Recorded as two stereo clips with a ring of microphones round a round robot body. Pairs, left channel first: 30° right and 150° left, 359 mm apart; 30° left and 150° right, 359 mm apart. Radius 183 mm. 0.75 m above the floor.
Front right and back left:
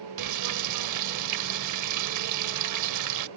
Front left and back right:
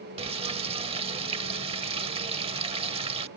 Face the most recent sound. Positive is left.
turn(degrees=140)